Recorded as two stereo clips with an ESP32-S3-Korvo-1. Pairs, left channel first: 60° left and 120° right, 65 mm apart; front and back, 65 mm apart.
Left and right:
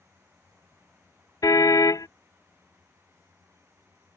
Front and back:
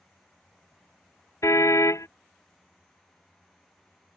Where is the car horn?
40° left.